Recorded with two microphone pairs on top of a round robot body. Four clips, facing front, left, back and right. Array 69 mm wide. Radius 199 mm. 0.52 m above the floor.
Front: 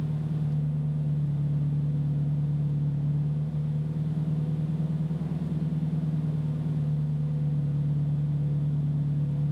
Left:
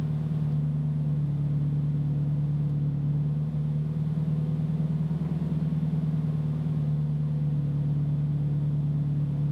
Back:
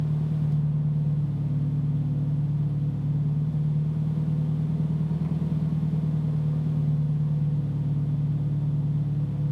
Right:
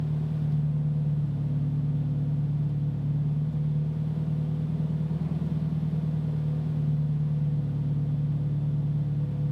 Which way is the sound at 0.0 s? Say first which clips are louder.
Even, back 3 dB; 150° left.